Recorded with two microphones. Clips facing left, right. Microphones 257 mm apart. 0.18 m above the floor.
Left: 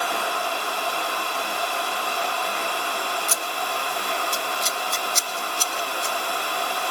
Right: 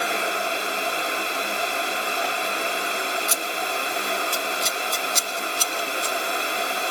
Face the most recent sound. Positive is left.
turn(degrees=-45)  # may be behind; listen again after turning